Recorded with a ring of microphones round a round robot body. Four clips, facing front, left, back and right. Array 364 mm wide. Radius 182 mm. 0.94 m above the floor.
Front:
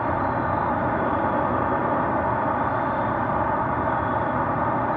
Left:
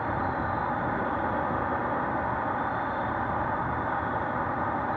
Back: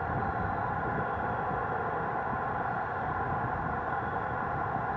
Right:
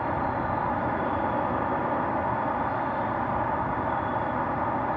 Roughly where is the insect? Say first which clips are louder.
Right 2 dB, front 9 dB; ahead.